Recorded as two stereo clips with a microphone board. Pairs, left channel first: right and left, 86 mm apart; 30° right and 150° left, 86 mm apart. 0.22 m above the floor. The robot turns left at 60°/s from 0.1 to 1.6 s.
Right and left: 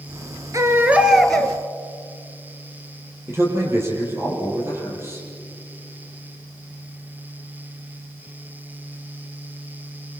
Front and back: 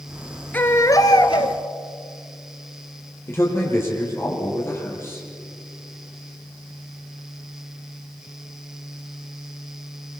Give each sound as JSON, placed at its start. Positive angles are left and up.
{"t": 0.5, "sound": "a baby crying", "azimuth_deg": 40, "distance_m": 1.9}
{"t": 3.3, "sound": "a man speaking", "azimuth_deg": 30, "distance_m": 8.0}